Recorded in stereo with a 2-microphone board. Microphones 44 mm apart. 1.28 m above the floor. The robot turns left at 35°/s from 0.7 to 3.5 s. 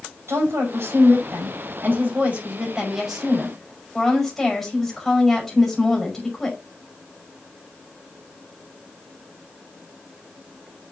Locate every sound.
0.3 s a woman speaking: 85° right, 5.5 m; by 6.6 s 175° left, 5.5 m